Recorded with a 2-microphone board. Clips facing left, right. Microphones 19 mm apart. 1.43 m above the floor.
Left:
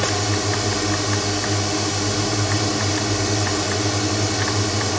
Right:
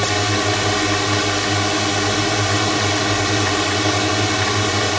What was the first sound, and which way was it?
A drone, 30° right (ahead or behind).